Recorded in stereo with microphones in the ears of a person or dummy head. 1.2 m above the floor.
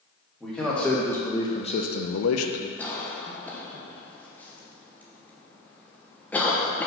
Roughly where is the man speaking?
Centre.